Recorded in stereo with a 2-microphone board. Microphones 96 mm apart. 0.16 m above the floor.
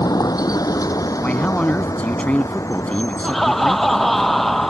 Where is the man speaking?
15° left (ahead or behind).